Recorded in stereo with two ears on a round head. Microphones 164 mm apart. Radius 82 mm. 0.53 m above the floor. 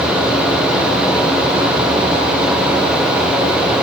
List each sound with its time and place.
Only background noise.